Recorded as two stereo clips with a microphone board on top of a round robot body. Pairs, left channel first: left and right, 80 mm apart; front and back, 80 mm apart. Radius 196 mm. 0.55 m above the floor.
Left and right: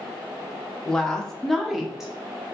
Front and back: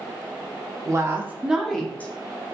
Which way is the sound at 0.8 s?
165° left.